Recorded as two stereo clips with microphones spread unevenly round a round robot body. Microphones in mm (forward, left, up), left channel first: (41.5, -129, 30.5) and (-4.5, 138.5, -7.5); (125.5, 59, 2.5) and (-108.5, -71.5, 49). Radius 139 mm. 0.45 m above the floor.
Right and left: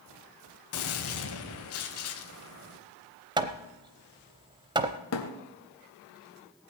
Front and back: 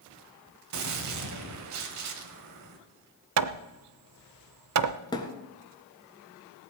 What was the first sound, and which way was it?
A gunshot, 120° right.